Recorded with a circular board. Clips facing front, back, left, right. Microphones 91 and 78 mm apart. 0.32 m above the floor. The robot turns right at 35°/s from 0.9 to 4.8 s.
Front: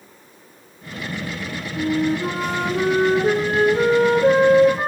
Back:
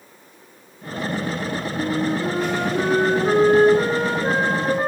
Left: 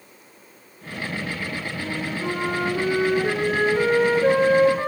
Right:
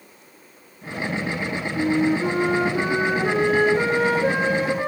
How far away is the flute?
About 8 m.